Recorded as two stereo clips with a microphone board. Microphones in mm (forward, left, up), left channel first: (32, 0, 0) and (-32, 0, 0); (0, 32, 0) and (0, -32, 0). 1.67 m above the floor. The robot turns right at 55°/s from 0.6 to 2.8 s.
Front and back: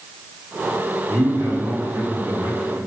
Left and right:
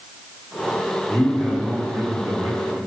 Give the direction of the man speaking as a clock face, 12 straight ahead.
6 o'clock.